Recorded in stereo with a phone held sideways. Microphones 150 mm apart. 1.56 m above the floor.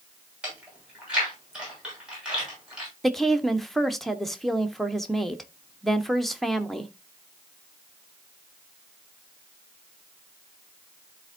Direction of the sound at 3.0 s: Centre (ahead or behind).